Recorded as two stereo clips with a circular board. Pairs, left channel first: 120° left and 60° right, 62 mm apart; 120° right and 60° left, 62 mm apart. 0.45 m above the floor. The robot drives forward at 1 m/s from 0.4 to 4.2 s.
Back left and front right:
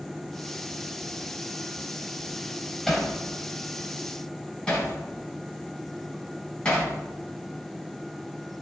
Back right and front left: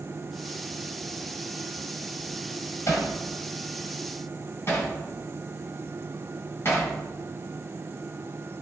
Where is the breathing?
I don't hear breathing.